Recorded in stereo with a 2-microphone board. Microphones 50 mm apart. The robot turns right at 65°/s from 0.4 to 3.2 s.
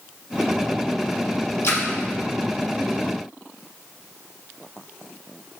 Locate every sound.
1.6 s a splash: 60° left (ahead or behind), 0.6 m; by 1.9 s 55° left (ahead or behind), 0.6 m